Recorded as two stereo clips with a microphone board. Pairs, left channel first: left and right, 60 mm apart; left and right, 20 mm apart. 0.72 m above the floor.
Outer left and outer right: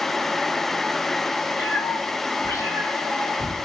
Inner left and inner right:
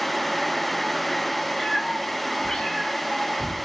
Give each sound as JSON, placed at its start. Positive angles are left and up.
{"t": 1.6, "sound": "a cat meowing", "side_deg": 45, "distance_m": 1.5}